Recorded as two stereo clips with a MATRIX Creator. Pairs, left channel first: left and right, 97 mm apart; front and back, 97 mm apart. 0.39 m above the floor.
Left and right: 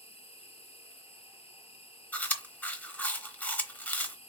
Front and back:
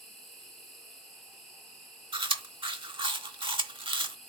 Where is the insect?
90° left, 2.5 m.